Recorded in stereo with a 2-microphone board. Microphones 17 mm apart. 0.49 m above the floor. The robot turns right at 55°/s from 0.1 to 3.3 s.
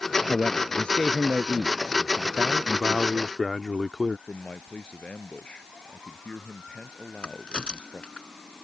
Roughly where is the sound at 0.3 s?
Ahead left.